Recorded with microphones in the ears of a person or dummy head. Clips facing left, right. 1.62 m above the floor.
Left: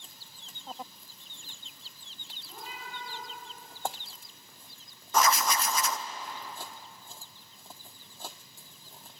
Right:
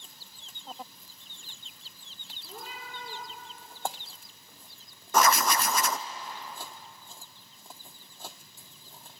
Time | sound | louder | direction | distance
2.4 | a cat meowing | right 1 dB | 35° right (ahead or behind) | 5 m
5.1 | writing | right 2 dB | 50° right (ahead or behind) | 0.5 m